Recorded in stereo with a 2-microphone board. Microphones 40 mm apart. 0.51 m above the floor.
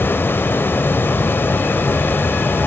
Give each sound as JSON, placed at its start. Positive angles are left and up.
{"t": 0.0, "sound": "running water", "side_deg": 60, "distance_m": 0.7}